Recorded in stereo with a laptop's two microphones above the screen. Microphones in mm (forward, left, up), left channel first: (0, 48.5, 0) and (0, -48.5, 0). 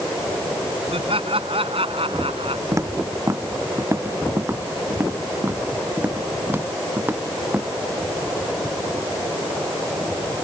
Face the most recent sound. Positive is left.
turn(degrees=-20)  # may be behind; listen again after turning